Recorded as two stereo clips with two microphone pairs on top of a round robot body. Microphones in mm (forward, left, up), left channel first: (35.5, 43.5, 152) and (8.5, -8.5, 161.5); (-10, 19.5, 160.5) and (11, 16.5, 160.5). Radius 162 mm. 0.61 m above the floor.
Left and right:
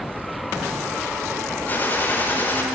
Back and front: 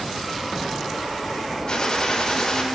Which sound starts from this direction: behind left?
A gunshot, at 1.7 s.